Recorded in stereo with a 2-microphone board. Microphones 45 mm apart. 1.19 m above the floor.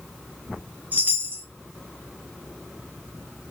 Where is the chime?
40° right (ahead or behind), 0.7 m.